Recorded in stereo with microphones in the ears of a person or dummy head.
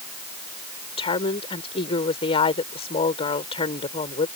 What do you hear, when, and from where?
1.0 s a woman speaking: 40° left (ahead or behind)